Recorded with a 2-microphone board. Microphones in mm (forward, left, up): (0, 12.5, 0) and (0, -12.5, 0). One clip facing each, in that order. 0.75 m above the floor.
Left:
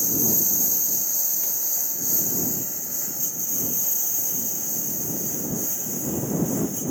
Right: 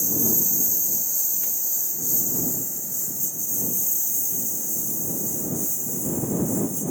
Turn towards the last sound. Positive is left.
turn(degrees=30)  # may be behind; listen again after turning